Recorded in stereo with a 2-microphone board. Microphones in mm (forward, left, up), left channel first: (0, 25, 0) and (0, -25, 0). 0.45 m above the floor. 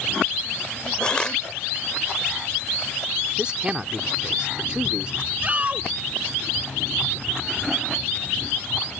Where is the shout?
30° right (ahead or behind).